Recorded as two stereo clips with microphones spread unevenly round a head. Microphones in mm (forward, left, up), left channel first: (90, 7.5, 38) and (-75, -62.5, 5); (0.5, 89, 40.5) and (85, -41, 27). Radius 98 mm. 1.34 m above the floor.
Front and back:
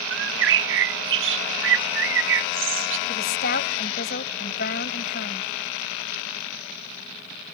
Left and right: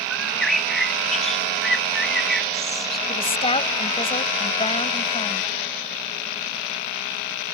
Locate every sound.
0.1 s a bird: 150° right
3.1 s a woman speaking: 70° left